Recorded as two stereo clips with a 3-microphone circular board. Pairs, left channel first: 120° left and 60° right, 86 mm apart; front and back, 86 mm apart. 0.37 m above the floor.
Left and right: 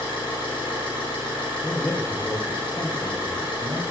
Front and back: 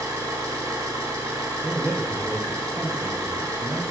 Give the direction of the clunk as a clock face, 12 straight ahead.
No clunk in this recording.